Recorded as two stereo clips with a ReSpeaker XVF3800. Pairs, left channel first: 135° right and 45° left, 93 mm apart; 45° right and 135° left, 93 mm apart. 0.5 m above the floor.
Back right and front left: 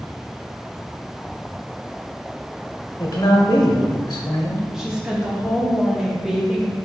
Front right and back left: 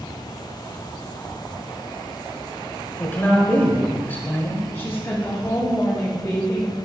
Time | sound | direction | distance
3.0 | a man speaking | 110° right | 1.1 m
4.7 | a woman speaking | 35° right | 0.9 m